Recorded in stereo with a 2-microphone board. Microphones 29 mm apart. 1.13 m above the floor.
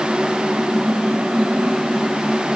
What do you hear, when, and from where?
Only background noise.